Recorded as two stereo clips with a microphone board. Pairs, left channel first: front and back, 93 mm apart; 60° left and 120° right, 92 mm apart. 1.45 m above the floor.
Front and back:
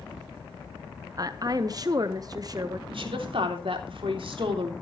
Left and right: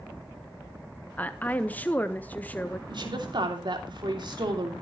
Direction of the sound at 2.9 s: 155° right.